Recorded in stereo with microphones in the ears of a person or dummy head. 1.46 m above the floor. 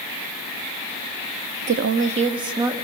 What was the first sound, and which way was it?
A woman speaking, 50° right (ahead or behind).